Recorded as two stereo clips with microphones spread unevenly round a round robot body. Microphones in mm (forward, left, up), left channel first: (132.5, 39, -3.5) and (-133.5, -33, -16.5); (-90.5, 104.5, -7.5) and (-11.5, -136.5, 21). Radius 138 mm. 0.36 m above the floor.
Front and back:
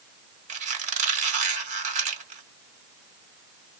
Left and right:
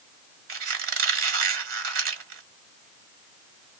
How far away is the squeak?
About 1.7 m.